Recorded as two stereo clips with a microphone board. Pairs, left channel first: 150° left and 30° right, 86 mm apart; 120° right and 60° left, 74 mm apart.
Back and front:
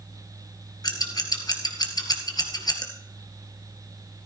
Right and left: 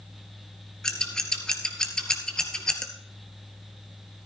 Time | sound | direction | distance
0.8 | scissors | 165° left | 1.9 m